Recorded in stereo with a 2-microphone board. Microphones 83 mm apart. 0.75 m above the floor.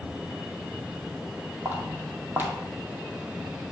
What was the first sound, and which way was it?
Footsteps, 25° right (ahead or behind).